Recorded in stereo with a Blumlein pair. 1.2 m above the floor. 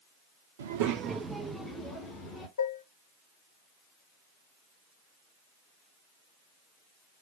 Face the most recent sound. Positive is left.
turn(degrees=60)